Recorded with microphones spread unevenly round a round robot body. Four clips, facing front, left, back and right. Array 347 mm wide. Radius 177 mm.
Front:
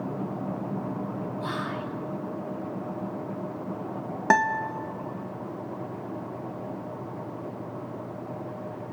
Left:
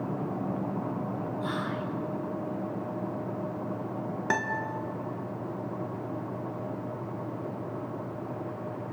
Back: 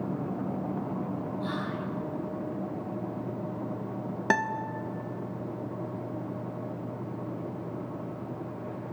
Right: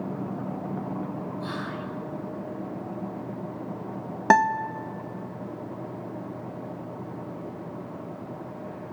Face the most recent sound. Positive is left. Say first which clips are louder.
# right 12 dB, front 6 dB
turn(degrees=-65)